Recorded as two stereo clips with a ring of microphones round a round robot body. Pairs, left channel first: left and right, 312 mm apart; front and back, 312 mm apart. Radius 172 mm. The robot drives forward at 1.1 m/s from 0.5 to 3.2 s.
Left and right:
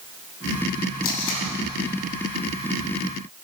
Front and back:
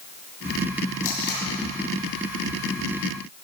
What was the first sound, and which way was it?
Tape being pulled, 55° left.